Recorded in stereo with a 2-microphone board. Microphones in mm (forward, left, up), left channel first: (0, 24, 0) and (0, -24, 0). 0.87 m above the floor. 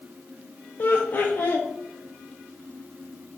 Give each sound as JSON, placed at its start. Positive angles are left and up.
{"t": 0.8, "sound": "laughter", "side_deg": 45, "distance_m": 0.5}